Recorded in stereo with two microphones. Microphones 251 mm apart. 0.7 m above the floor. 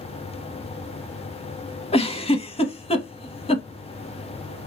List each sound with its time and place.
1.9 s a giggle: 25° left (ahead or behind), 0.7 m